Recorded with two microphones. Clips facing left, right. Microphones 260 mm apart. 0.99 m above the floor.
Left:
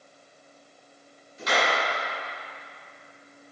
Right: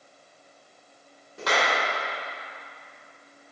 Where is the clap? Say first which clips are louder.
Even; 75° right (ahead or behind), 3.5 m.